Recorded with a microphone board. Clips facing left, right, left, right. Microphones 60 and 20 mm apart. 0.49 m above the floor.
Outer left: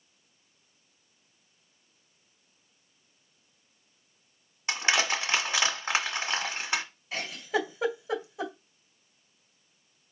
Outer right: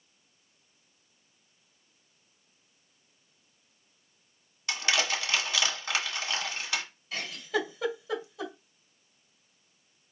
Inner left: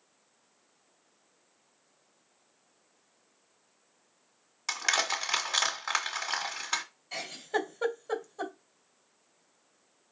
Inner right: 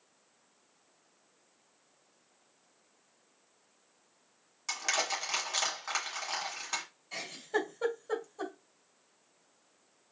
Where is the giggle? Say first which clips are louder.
Outer left 1 dB, inner left 1 dB; 25° left (ahead or behind), 2 m.